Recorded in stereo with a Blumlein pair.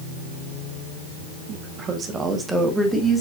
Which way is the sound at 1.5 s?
35° right.